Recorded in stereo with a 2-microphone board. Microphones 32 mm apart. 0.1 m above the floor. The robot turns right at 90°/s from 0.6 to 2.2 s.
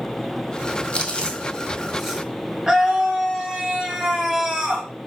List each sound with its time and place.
0.9 s chewing: 40° left (ahead or behind), 0.7 m; by 2.2 s 20° right (ahead or behind), 0.7 m
2.7 s a scream: 20° right (ahead or behind), 1.1 m